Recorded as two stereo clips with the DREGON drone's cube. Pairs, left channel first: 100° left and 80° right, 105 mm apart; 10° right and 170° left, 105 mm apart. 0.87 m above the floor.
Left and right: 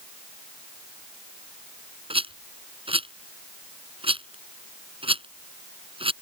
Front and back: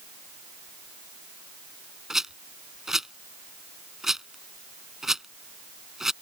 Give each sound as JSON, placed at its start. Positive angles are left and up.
{"t": 2.1, "sound": "a rattle", "azimuth_deg": -105}